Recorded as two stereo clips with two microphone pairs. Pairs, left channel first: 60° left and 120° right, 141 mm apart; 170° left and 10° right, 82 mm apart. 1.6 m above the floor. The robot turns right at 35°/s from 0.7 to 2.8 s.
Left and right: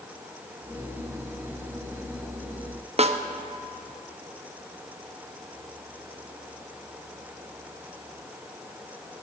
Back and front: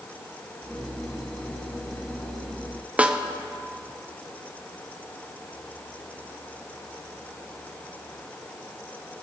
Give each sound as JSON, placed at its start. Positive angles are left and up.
{"t": 3.0, "sound": "a snare drum", "azimuth_deg": -85, "distance_m": 0.7}